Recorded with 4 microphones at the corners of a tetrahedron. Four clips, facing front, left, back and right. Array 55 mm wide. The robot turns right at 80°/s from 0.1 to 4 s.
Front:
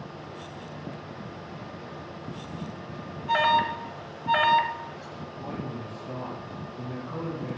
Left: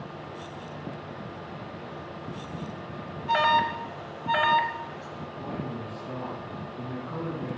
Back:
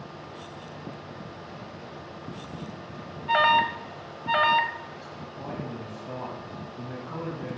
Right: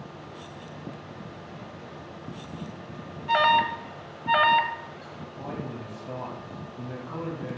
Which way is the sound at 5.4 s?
135° right.